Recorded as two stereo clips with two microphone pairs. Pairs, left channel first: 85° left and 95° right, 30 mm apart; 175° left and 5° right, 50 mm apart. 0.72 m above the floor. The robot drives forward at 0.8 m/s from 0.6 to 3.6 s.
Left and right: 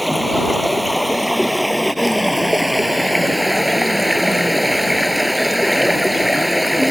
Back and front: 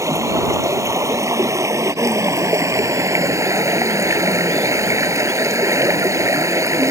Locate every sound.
0.0 s running water: 5° right; by 6.9 s 10° right